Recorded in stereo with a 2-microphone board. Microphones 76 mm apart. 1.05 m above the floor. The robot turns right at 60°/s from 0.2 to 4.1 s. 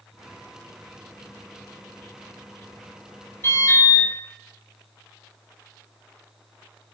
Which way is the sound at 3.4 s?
35° left.